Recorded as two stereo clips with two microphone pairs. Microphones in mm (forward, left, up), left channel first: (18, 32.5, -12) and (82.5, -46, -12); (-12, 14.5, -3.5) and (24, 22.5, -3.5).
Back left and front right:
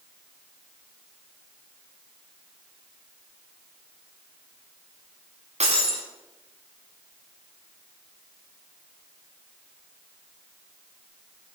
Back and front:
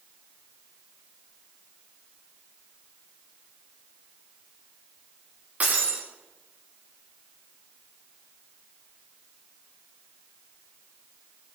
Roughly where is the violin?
I don't hear a violin.